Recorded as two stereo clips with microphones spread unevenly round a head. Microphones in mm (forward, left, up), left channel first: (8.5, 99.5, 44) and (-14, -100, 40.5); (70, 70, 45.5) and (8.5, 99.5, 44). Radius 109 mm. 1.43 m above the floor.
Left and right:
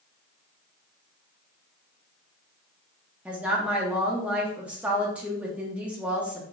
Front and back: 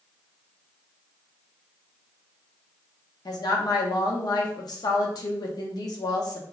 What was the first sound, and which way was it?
A woman speaking, 15° right.